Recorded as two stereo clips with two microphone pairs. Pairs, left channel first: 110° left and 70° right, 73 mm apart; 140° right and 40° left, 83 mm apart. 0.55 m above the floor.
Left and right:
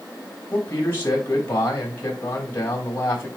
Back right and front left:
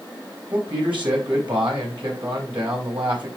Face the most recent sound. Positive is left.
turn(degrees=55)